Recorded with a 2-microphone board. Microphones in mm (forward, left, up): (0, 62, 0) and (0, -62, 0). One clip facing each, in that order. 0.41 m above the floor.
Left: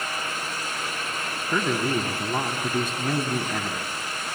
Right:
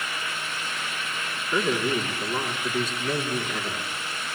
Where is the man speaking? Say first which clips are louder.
Even; 50° left (ahead or behind), 4.5 m.